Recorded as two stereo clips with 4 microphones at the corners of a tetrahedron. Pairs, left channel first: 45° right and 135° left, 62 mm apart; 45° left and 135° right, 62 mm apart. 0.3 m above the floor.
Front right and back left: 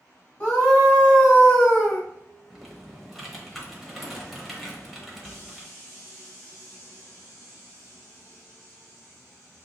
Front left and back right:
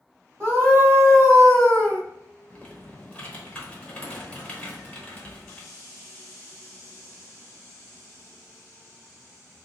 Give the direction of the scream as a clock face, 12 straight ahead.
3 o'clock.